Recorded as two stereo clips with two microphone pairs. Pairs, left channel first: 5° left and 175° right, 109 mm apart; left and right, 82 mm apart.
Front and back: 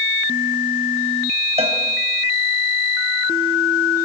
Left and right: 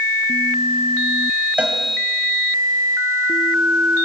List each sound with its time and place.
1.6 s a cowbell: 165° right, 3.5 m